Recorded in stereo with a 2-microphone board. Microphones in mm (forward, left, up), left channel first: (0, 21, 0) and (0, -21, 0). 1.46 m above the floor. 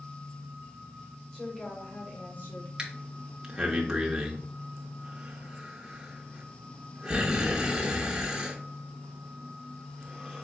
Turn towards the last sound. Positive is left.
turn(degrees=-15)  # may be behind; listen again after turning